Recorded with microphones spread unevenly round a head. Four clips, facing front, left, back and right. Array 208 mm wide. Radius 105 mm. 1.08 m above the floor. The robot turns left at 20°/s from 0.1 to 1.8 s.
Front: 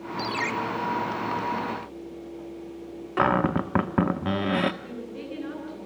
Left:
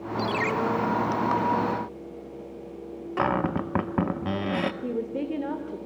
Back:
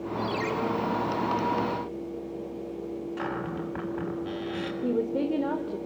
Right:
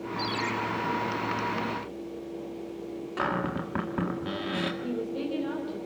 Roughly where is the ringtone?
Ahead left.